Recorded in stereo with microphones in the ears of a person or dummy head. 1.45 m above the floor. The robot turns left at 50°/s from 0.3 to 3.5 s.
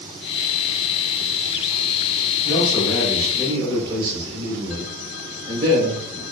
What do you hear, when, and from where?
2.5 s a man speaking: 25° left, 1.1 m; by 6.2 s 30° right, 1.1 m